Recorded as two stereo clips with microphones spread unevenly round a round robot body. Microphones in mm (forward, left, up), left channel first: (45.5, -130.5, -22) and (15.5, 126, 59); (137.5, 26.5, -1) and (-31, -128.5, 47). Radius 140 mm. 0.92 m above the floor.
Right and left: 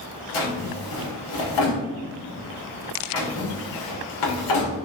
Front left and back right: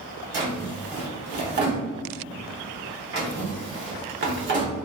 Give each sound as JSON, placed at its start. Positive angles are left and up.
{"t": 0.3, "sound": "a drawer", "azimuth_deg": -100, "distance_m": 1.4}